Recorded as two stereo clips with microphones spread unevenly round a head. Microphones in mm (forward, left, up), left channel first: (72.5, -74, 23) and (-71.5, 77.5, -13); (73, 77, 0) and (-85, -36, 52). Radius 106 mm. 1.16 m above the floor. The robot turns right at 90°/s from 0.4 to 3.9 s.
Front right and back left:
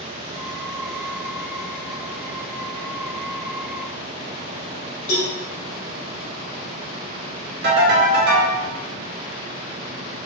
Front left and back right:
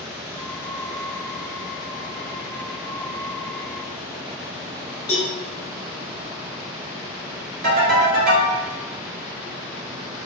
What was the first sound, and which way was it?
A cowbell, 25° right.